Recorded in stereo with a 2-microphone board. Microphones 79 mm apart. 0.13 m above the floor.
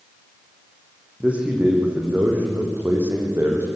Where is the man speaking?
20° right (ahead or behind), 6 m; by 3.7 s 35° right (ahead or behind), 4.5 m.